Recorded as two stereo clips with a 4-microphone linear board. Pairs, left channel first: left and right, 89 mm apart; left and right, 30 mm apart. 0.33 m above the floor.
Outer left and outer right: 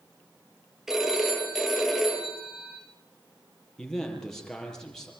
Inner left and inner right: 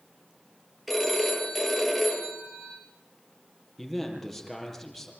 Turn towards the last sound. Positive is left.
turn(degrees=5)  # may be behind; listen again after turning